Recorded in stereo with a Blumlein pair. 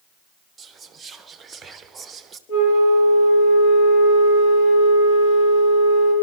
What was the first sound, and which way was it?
Whispering, 15° right.